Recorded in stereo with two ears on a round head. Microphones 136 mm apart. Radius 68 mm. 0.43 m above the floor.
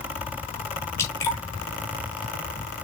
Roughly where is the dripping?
Centre.